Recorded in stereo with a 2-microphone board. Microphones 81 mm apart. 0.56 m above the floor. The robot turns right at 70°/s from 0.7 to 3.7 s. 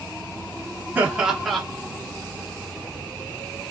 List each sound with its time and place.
0.9 s laughter: 35° right, 0.9 m; by 1.6 s 15° left, 0.9 m